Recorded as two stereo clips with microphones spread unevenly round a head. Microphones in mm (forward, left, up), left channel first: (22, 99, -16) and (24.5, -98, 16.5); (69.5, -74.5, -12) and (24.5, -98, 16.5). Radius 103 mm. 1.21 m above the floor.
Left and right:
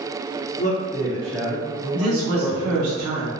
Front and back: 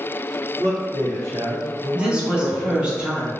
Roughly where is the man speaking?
Behind left.